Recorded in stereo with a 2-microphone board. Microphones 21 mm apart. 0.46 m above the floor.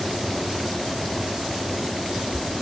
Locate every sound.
Only background noise.